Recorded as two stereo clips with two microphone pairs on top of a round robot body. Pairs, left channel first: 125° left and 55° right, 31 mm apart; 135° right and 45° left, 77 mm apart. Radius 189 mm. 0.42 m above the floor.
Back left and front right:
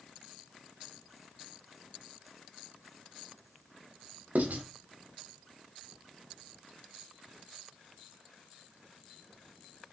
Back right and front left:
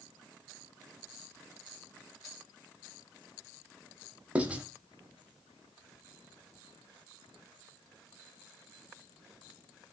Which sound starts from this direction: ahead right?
Writing, at 4.3 s.